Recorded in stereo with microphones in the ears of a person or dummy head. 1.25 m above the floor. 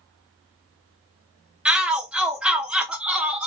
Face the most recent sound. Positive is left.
turn(degrees=-5)  # may be behind; listen again after turning